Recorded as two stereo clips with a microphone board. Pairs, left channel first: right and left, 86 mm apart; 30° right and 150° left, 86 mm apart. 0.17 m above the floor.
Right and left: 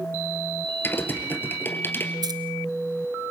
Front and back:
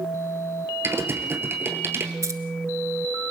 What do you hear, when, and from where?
0.8 s typing on a keyboard: 150° right, 2 m
2.2 s keys jangling: 105° left, 1.5 m